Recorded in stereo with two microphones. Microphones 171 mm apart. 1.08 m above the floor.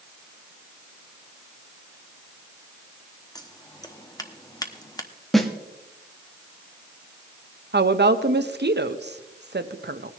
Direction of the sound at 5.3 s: Centre (ahead or behind).